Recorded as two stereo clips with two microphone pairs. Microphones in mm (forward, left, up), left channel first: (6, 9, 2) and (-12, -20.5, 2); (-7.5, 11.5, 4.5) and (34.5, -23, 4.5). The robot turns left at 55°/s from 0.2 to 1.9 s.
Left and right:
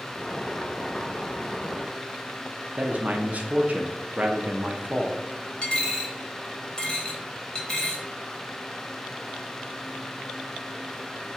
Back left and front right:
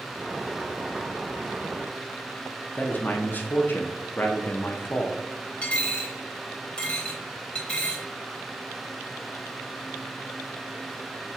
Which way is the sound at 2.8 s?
165° right.